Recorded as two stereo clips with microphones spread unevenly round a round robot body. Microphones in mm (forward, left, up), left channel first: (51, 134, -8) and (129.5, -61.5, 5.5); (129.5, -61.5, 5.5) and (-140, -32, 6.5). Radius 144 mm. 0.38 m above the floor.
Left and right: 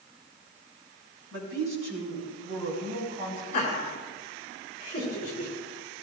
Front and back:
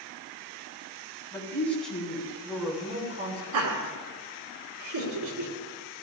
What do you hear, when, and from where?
1.3 s a woman speaking: 85° right, 4 m; by 3.4 s 130° right, 4 m
3.5 s laughter: 175° left, 3 m